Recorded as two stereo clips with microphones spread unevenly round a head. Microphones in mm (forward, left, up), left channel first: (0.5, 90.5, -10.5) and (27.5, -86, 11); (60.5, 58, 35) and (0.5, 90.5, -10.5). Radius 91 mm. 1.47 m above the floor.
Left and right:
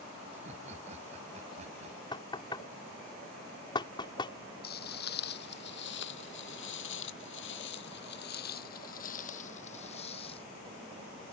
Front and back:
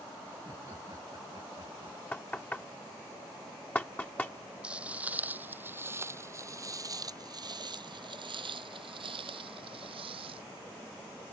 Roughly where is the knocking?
Ahead left.